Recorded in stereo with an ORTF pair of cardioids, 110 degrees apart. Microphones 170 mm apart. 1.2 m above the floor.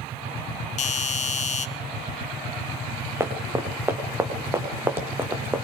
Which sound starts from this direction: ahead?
Running footsteps, at 3.2 s.